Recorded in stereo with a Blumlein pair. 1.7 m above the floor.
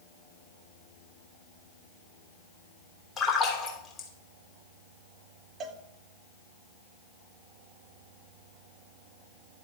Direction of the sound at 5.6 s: 25° right.